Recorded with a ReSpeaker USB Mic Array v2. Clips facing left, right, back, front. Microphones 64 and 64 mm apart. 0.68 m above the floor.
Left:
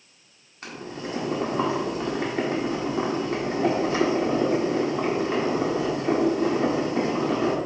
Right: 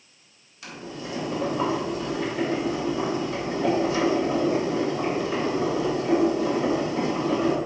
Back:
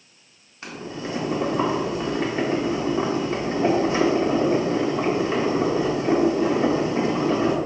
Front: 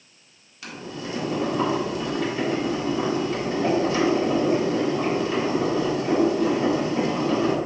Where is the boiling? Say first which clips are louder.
Left 2 dB, back 2 dB; 125° left, 1.7 m.